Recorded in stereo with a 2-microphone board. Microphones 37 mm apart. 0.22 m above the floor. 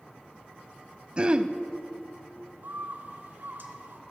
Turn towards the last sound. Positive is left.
turn(degrees=-65)  # may be behind; listen again after turning